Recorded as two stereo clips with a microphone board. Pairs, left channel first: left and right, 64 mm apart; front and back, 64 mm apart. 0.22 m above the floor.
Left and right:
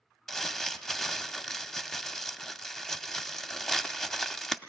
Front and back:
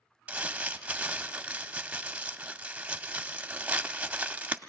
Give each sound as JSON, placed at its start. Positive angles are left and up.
{"t": 0.3, "sound": "crumpling", "azimuth_deg": 165, "distance_m": 0.6}